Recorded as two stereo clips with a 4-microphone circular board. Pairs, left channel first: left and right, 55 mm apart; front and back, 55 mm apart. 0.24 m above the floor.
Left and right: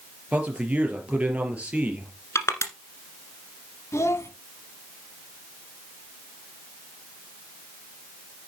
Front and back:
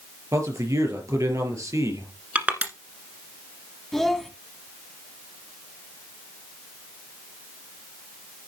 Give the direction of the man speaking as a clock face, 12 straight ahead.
5 o'clock.